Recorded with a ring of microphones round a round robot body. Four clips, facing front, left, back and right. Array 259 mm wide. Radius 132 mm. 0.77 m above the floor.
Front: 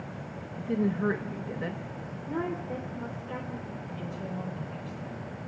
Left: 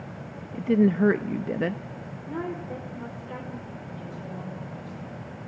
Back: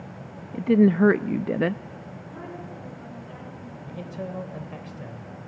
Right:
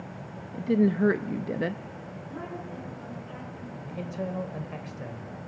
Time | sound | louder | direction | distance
0.5 | a woman speaking | left 2 dB, back 11 dB | 165° left | 0.5 m
2.3 | a woman speaking | left 6 dB, front 8 dB | 40° left | 2.5 m
3.9 | a man speaking | right 4 dB, back 6 dB | 130° right | 3.5 m